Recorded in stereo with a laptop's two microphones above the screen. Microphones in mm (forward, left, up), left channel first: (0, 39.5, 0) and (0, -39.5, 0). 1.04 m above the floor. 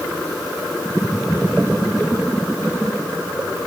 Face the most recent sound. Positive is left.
No sound to turn to.